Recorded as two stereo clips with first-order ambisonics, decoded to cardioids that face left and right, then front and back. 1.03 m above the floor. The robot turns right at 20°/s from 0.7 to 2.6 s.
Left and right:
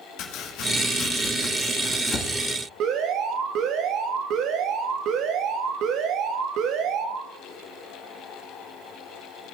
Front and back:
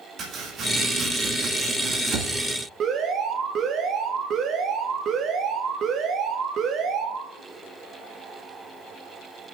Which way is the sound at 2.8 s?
130° right.